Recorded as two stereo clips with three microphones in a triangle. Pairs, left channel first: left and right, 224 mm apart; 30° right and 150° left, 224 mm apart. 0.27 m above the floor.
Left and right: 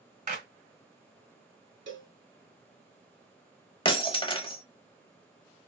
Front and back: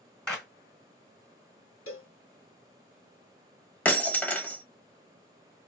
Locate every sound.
0.3 s a clap: 115° right, 1.6 m
1.9 s a cowbell: 55° right, 0.7 m
3.9 s breaking glass: 45° left, 0.8 m